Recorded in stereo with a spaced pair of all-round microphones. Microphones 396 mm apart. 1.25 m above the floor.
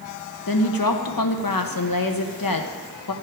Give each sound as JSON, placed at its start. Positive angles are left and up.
{"t": 0.5, "sound": "a woman speaking", "side_deg": 60, "distance_m": 1.0}